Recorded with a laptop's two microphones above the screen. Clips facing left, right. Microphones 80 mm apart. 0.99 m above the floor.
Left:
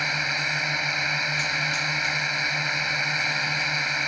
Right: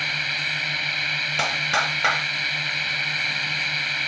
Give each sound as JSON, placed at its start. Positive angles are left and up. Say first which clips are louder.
{"t": 0.0, "sound": "a drone", "louder": "left 1 dB", "side_deg": 20}
{"t": 1.4, "sound": "a clap", "louder": "right 4 dB", "side_deg": -90}